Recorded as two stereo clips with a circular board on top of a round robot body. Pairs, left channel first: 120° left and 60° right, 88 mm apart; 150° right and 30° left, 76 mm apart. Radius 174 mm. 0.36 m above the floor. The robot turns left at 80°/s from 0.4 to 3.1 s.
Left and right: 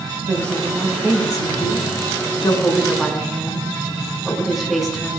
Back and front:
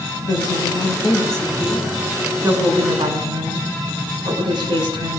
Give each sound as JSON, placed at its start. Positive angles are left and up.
{"t": 0.2, "sound": "a woman speaking", "azimuth_deg": -115, "distance_m": 7.0}